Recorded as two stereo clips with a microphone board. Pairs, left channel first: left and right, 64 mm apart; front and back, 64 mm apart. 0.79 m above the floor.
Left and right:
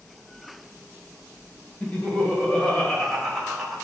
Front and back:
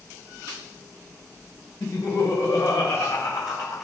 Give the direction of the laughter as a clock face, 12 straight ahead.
11 o'clock.